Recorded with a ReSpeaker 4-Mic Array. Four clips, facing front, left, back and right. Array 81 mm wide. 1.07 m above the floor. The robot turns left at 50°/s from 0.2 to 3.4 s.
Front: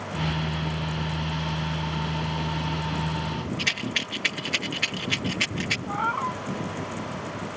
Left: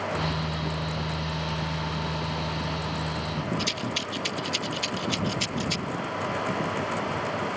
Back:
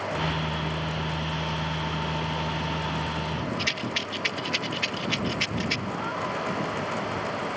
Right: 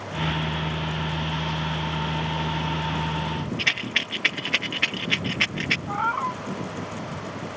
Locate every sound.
3.6 s a rattle: 80° right
5.9 s a cat meowing: 60° right